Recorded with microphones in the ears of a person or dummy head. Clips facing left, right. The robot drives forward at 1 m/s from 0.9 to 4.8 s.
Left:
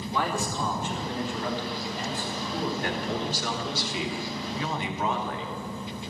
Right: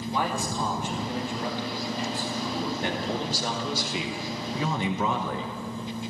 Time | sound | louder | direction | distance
0.1 | a man speaking | even | 20° right (ahead or behind) | 2.5 m
2.8 | a man speaking | right 1 dB | 25° right (ahead or behind) | 2.5 m